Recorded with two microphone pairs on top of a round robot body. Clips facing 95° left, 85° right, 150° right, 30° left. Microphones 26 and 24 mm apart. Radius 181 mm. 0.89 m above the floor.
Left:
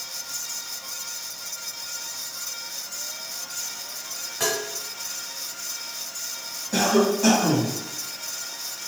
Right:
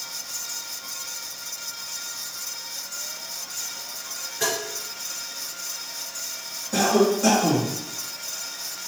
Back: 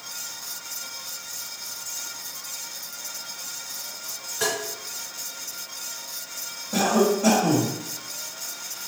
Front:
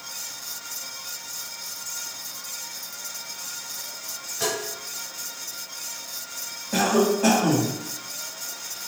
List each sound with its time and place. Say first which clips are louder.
4.4 s tapping: even, back 1 dB; 105° left, 1.3 m
6.7 s a cough: right 1 dB, even; 25° left, 1.6 m